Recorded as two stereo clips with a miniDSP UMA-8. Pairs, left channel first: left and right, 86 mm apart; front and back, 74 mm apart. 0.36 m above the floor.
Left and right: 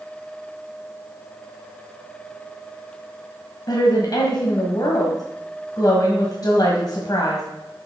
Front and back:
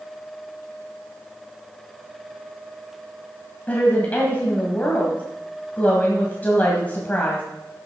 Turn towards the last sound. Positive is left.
turn(degrees=65)